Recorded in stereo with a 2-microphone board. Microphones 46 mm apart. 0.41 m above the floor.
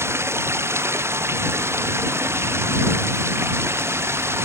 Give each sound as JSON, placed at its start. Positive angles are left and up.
{"t": 0.0, "sound": "running water", "side_deg": -65}